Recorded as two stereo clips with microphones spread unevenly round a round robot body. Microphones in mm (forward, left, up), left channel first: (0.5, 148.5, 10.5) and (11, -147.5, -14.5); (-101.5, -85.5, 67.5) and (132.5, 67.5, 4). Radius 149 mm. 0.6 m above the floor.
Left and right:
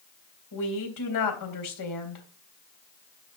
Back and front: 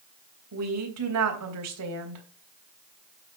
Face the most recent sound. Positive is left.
turn(degrees=65)